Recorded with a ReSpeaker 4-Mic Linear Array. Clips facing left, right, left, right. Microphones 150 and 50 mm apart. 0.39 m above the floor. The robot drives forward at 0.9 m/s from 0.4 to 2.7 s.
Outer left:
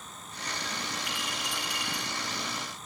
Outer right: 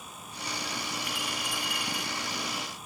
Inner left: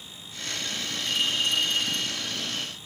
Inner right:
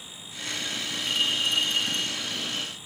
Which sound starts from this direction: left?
A clink, at 1.1 s.